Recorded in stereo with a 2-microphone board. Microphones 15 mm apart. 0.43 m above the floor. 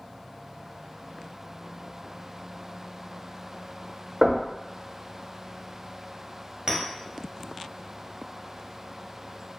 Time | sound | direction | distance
4.2 | knocking | 45° right (ahead or behind) | 0.7 m
6.7 | a clink | 40° right (ahead or behind) | 1.0 m